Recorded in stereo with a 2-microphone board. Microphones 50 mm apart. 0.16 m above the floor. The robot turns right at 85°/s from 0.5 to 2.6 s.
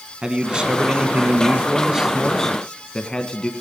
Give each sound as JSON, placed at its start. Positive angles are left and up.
{"t": 0.2, "sound": "a man speaking", "side_deg": -15, "distance_m": 1.1}